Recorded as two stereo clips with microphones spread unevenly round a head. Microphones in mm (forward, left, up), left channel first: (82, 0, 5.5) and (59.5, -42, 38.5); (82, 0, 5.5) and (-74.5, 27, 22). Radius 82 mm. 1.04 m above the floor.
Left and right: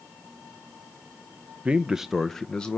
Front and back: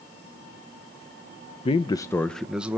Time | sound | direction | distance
1.6 | a man speaking | 15° right | 0.7 m